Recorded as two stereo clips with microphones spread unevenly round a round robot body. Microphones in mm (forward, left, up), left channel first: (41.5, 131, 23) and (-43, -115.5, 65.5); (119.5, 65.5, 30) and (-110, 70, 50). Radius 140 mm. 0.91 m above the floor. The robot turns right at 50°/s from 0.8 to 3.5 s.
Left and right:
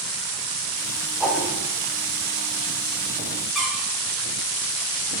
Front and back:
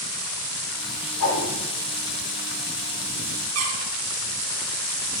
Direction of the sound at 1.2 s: 20° right.